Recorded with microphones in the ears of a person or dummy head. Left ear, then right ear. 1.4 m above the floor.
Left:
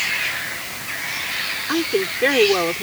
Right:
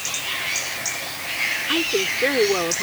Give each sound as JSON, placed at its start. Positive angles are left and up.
{"t": 1.7, "sound": "a woman speaking", "side_deg": 20}